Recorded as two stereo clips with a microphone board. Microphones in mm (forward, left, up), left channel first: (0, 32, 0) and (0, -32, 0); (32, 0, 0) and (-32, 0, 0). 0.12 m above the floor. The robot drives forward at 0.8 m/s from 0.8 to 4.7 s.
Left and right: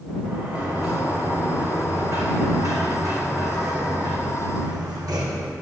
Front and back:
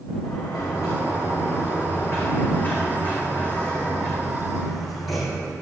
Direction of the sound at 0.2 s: 40° right.